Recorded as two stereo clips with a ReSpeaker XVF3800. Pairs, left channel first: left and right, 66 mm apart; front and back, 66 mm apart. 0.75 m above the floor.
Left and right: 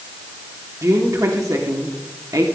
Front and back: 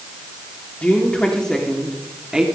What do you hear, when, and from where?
0.8 s a woman speaking: 65° right, 2 m; by 2.5 s 105° right, 1.9 m